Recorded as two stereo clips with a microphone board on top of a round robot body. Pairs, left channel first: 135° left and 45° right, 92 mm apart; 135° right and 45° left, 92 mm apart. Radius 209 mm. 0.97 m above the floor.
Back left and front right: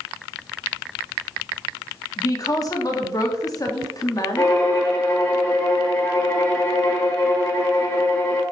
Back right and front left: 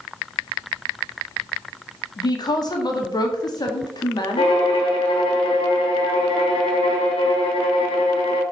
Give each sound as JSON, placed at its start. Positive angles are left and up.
{"t": 2.2, "sound": "a woman speaking", "azimuth_deg": -175, "distance_m": 1.9}
{"t": 4.4, "sound": "a violin", "azimuth_deg": -165, "distance_m": 1.2}